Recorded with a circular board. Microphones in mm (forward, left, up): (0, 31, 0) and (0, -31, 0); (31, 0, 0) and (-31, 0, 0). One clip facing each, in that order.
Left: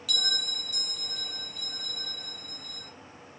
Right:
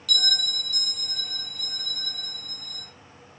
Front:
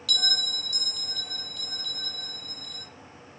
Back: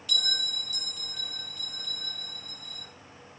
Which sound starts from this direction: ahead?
A bell, at 0.1 s.